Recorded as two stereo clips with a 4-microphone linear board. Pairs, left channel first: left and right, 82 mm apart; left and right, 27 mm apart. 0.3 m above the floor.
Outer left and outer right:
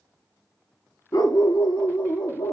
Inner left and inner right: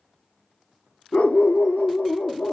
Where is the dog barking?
50° left (ahead or behind), 0.9 m; by 2.5 s 90° left, 2 m.